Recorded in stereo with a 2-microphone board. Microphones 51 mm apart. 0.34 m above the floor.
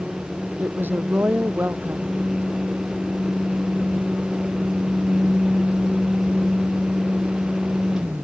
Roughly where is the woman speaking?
Right.